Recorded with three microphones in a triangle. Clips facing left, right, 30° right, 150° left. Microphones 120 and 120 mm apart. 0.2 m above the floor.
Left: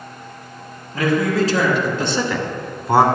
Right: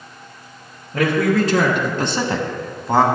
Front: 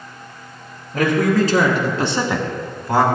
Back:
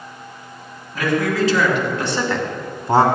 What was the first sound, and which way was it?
A man speaking, 70° right.